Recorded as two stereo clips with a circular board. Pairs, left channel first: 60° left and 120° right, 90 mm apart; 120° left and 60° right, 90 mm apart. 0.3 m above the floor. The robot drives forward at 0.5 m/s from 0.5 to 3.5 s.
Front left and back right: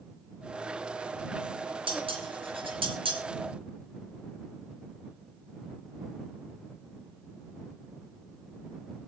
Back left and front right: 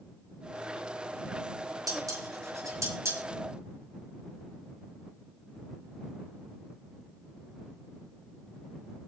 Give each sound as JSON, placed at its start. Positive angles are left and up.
{"t": 1.9, "sound": "dishes clattering", "azimuth_deg": -110, "distance_m": 4.0}